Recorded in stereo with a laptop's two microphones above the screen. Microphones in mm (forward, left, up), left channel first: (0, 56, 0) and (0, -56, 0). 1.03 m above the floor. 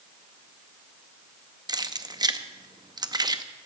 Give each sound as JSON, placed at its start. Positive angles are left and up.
{"t": 1.7, "sound": "keys jangling", "side_deg": -35, "distance_m": 0.6}